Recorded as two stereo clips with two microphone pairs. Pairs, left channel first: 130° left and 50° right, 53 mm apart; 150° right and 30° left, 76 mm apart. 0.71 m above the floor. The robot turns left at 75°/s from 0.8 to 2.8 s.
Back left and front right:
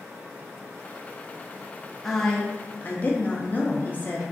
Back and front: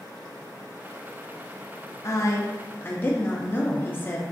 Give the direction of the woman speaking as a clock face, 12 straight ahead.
5 o'clock.